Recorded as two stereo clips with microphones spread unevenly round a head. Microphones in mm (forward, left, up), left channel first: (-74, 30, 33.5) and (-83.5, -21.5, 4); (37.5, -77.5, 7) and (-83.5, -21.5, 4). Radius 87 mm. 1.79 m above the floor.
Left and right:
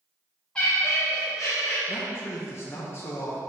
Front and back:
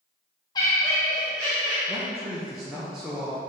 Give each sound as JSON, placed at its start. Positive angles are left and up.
{"t": 0.6, "sound": "laughter", "azimuth_deg": 35, "distance_m": 0.6}
{"t": 1.9, "sound": "a man speaking", "azimuth_deg": 70, "distance_m": 0.9}